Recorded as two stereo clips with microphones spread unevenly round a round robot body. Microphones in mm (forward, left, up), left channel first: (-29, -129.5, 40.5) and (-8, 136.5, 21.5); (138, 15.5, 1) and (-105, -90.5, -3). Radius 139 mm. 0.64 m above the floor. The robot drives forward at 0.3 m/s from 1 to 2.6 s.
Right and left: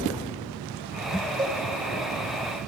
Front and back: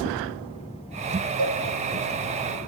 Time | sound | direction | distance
1.4 | a cowbell | 160° left | 0.6 m